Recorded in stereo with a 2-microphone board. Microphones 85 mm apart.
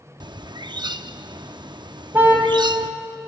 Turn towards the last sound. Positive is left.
turn(degrees=-25)  # may be behind; listen again after turning